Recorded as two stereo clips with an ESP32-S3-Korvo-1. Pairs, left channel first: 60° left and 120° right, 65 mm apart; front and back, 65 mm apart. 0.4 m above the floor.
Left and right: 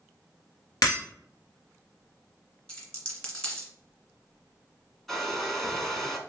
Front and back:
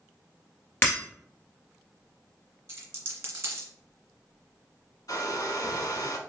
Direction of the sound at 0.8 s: 50° left.